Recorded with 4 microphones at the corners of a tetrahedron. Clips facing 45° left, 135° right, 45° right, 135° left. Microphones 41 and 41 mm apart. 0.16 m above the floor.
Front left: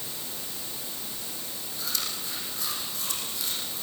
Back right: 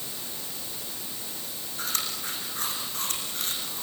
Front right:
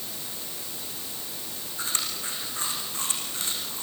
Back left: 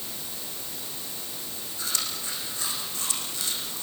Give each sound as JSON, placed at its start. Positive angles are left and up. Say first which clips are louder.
{"t": 1.8, "sound": "chewing", "louder": "back right 2 dB, front right 1 dB", "azimuth_deg": -95, "distance_m": 8.0}